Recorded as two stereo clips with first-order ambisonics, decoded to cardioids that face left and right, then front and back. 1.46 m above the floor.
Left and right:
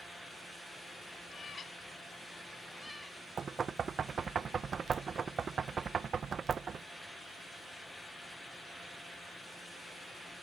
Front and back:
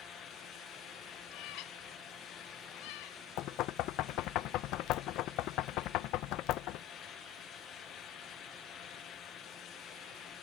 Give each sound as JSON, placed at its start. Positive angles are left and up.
{"t": 1.3, "sound": "a cat meowing", "azimuth_deg": 25}
{"t": 3.4, "sound": "knocking", "azimuth_deg": -25}